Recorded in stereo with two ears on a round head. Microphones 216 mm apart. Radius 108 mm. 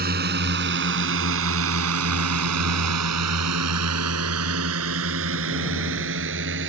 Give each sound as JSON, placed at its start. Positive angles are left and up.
{"t": 0.0, "sound": "a drone", "side_deg": -40}